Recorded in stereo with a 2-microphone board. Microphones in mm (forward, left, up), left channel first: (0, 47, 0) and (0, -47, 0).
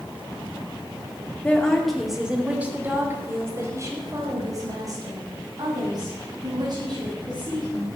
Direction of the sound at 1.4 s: 15° left (ahead or behind).